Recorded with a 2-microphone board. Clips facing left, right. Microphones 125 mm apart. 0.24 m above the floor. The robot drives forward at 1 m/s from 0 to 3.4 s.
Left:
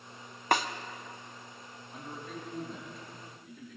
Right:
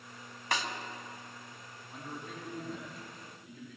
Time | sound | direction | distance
0.5 | a snare drum | 55° left (ahead or behind) | 0.6 m
1.9 | a man speaking | centre (ahead or behind) | 4.5 m